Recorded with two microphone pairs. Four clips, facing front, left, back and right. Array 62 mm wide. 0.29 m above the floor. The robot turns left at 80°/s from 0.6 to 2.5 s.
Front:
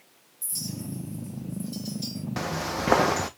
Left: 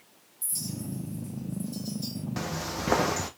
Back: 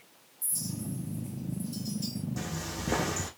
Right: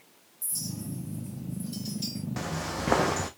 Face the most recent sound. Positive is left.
turn(degrees=0)